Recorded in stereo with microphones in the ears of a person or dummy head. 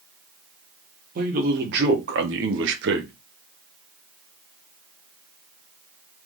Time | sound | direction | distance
1.1 | a man speaking | 45° right (ahead or behind) | 1.5 m